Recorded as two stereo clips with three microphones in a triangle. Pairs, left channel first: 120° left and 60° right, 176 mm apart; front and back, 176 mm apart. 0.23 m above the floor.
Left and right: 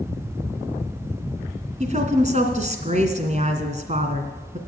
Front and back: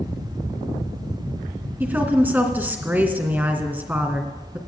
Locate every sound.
1.8 s a woman speaking: 100° right, 2.5 m